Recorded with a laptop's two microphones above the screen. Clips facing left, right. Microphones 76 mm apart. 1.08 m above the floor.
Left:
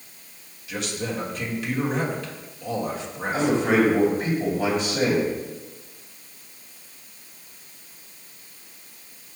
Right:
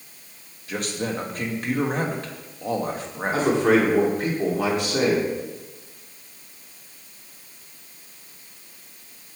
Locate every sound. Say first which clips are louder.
0.7 s a man speaking: right 2 dB; 45° right (ahead or behind), 1.4 m
3.3 s a man speaking: right 2 dB; 85° right, 2 m